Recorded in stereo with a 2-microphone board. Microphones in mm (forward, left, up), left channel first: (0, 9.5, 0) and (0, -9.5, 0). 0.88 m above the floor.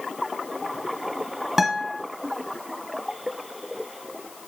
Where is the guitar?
15° right (ahead or behind), 1.6 m.